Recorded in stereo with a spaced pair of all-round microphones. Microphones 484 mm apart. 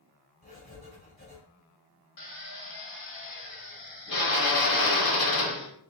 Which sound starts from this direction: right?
Writing, at 0.4 s.